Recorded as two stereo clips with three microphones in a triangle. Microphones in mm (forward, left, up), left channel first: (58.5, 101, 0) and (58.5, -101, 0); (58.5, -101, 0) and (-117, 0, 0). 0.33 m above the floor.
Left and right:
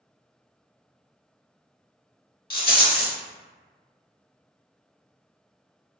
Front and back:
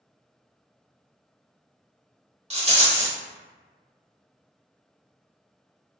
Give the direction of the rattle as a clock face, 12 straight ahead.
9 o'clock.